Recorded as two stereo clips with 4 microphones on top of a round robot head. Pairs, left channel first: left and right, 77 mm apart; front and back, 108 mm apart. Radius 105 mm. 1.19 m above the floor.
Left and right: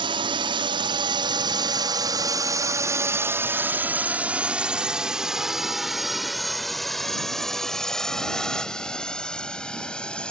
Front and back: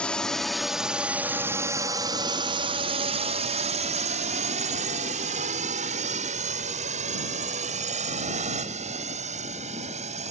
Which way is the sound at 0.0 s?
80° right.